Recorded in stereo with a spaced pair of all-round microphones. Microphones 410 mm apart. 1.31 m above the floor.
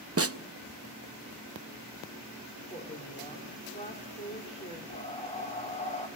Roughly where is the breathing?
Centre.